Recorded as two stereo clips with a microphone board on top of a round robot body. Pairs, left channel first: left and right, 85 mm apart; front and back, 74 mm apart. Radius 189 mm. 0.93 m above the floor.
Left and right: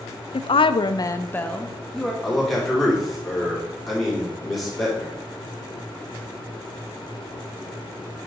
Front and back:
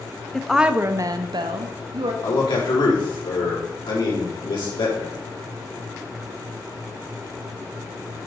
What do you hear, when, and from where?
0.3 s a woman speaking: 80° left, 0.6 m; by 2.1 s straight behind, 1.1 m
2.2 s a man speaking: straight ahead, 3.5 m